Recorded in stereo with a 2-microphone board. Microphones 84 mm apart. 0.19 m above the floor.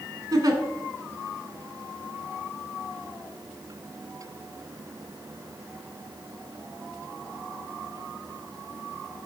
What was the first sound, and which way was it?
A giggle, 55° right (ahead or behind).